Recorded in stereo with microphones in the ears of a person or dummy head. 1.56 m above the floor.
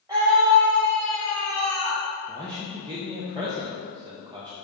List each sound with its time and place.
0.1 s a scream: 20° right (ahead or behind), 0.9 m; by 2.0 s 70° right (ahead or behind), 3 m
2.3 s a man speaking: 20° right (ahead or behind), 1.0 m